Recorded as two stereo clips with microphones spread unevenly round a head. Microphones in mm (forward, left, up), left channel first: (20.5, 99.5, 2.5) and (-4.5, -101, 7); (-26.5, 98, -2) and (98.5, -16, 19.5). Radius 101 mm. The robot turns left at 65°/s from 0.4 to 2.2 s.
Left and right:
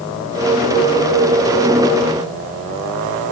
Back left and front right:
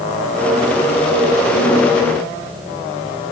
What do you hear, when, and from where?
Only background noise.